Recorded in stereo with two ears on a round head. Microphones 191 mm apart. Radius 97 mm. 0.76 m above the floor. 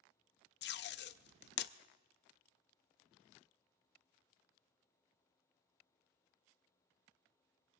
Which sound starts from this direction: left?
Tape being pulled, at 0.6 s.